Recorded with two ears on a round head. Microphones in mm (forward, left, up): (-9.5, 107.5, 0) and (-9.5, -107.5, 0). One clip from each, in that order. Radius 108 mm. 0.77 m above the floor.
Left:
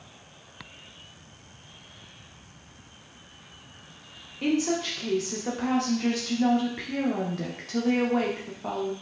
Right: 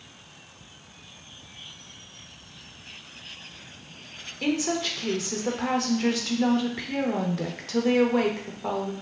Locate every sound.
4.4 s a woman speaking: 15° right (ahead or behind), 0.8 m